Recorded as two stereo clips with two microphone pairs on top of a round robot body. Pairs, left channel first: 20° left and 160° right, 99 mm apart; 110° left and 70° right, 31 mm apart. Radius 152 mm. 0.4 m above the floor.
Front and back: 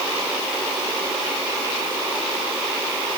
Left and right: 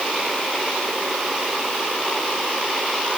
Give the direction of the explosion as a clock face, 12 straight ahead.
No explosion in this recording.